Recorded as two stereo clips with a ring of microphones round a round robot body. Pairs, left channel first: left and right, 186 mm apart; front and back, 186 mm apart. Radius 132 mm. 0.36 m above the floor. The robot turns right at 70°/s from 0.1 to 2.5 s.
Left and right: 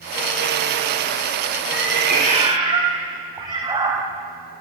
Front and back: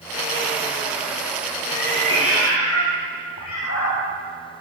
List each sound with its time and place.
1.7 s a cat meowing: 80° right, 6 m; by 4.0 s 25° right, 6 m